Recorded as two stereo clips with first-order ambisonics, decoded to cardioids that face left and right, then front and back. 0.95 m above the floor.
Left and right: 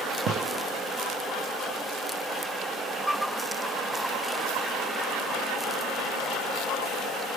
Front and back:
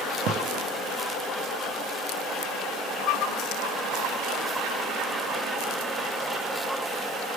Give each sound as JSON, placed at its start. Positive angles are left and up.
{"t": 0.3, "sound": "a gunshot", "azimuth_deg": -140, "distance_m": 0.7}